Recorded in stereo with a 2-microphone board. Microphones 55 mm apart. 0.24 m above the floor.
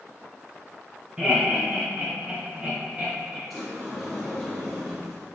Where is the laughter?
15° right (ahead or behind), 1.8 m; by 3.4 s 20° right (ahead or behind), 1.5 m.